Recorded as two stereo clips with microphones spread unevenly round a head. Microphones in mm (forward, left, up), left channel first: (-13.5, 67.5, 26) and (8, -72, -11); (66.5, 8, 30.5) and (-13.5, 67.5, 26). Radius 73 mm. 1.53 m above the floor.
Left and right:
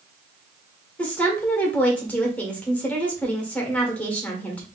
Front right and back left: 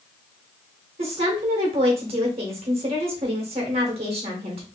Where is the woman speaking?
Straight behind, 1.3 m.